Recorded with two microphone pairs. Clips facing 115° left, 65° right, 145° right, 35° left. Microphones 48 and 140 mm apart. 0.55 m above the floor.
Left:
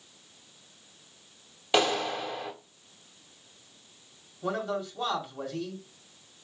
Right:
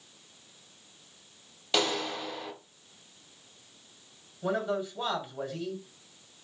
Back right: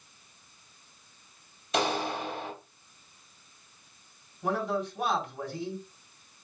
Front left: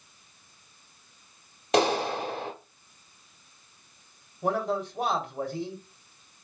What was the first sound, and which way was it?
A clap, 40° left.